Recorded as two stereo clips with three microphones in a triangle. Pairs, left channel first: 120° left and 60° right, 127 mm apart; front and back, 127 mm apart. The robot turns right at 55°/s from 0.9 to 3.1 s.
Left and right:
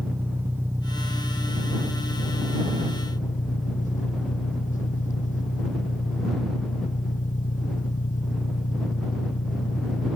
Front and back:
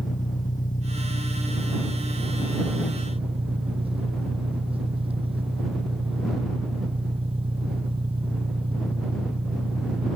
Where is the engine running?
15° left; by 10.2 s 135° left.